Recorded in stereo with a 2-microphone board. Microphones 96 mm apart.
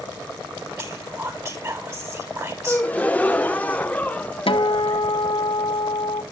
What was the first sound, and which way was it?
Whispering, 35° right (ahead or behind).